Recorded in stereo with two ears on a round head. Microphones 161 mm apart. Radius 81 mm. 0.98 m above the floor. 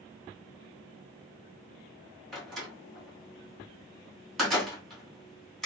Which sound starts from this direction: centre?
A door slam, at 2.3 s.